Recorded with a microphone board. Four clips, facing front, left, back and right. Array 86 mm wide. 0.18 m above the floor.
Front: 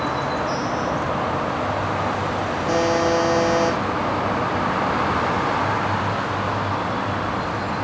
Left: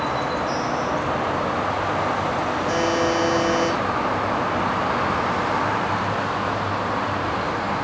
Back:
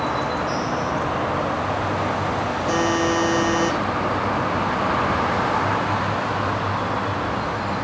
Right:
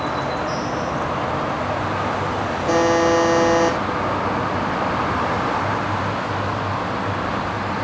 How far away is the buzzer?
About 4.5 m.